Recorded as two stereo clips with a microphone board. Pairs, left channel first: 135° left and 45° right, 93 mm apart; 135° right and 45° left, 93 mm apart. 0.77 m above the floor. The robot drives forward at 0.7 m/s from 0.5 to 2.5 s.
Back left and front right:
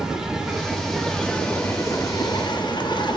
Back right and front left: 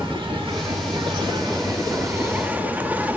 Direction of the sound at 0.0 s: 35° left.